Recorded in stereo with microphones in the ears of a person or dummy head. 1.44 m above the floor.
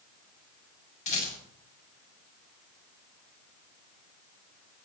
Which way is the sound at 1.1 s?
40° left (ahead or behind).